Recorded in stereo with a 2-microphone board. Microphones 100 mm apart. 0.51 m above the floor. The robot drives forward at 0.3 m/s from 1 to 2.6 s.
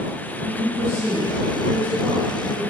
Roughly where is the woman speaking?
Centre.